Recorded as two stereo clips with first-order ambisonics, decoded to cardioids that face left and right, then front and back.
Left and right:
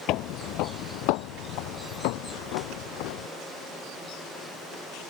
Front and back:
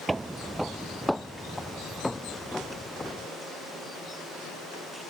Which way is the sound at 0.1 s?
100° left.